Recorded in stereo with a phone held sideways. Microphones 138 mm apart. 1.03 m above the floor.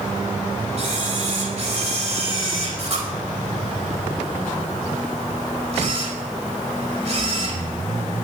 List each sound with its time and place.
0.8 s a camera shutter: 50° right (ahead or behind), 4.5 m